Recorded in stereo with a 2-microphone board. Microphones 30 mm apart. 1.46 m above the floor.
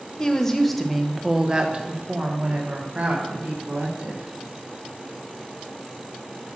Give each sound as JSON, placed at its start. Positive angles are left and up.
{"t": 0.2, "sound": "a woman speaking", "side_deg": 20, "distance_m": 0.9}